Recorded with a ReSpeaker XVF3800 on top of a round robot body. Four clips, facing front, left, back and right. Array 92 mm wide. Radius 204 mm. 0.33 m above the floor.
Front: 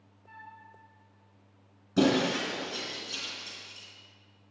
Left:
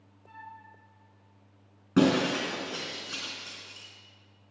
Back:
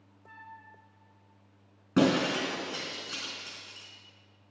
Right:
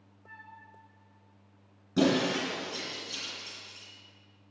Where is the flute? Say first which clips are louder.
Left 4 dB, even; 130° right, 2.5 m.